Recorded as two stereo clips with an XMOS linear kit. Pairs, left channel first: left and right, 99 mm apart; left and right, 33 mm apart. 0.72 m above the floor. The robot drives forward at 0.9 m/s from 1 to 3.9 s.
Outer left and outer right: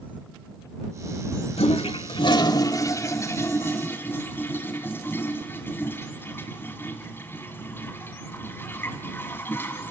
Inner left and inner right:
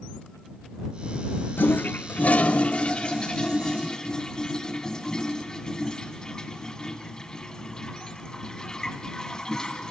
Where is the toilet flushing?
80° left, 0.8 m; by 9.9 s 20° left (ahead or behind), 2.5 m.